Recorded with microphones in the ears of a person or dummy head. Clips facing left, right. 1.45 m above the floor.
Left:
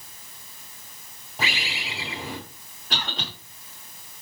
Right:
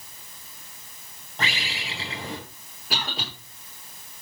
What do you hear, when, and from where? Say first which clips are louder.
1.4 s a bird: even; 5° left (ahead or behind), 6.5 m
2.9 s a cough: right 1 dB; 10° right (ahead or behind), 5 m